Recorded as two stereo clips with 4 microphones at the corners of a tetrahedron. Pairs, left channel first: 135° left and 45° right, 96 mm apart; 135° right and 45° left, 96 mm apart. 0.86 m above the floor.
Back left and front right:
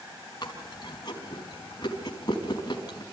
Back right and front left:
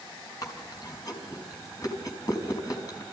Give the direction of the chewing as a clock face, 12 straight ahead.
6 o'clock.